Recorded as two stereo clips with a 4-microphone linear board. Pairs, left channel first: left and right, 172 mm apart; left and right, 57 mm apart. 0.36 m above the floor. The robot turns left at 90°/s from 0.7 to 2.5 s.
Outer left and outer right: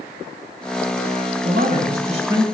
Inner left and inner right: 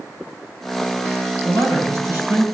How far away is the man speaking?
About 2.0 m.